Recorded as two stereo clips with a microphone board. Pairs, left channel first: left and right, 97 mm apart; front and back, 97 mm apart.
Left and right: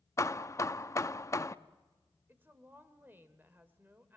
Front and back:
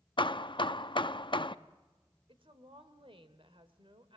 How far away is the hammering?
About 0.6 m.